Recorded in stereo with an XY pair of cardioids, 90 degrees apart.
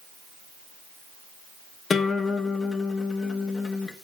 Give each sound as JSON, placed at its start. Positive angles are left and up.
{"t": 1.9, "sound": "a guitar", "azimuth_deg": 45, "distance_m": 1.3}